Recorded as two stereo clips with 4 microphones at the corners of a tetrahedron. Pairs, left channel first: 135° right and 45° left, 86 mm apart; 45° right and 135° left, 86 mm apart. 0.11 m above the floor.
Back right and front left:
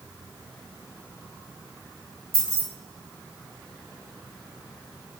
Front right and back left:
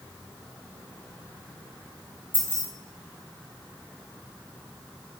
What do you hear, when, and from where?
2.3 s keys jangling: 105° right, 2 m